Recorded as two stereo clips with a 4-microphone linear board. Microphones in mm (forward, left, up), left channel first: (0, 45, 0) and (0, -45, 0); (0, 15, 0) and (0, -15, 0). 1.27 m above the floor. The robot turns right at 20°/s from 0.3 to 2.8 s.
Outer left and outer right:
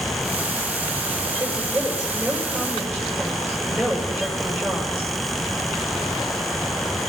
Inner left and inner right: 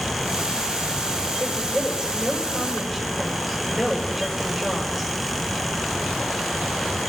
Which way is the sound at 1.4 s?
15° right (ahead or behind).